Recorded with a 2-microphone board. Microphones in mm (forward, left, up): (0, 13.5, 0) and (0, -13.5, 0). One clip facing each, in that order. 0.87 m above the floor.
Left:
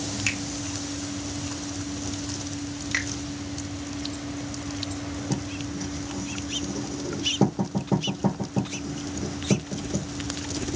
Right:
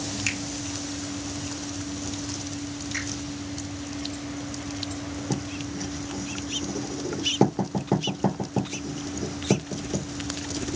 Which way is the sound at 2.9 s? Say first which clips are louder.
Left 5 dB; 60° left (ahead or behind).